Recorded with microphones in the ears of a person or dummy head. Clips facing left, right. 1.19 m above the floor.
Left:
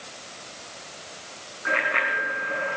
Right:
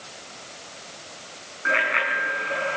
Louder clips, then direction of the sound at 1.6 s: Right 1 dB; 30° right (ahead or behind).